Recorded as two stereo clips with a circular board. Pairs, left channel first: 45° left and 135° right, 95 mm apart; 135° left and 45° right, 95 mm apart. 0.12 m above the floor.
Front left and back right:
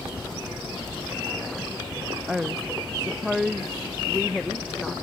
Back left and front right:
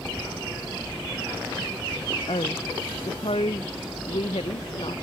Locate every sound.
2.3 s a woman speaking: 140° left; by 4.9 s 135° left